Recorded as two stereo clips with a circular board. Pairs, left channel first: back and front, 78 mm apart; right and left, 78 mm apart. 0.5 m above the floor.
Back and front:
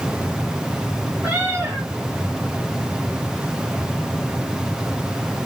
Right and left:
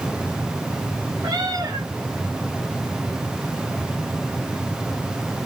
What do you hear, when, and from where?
1.2 s a cat meowing: 65° left, 5.5 m